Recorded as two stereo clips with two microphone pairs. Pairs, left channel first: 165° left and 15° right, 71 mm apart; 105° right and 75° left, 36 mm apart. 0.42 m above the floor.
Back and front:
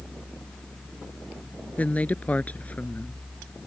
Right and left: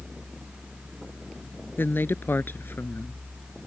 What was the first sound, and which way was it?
A woman speaking, 125° right.